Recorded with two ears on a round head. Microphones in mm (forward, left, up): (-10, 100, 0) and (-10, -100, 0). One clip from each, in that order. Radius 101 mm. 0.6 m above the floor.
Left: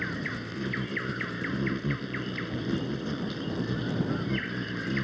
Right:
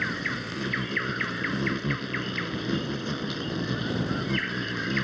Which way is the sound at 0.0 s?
25° right (ahead or behind).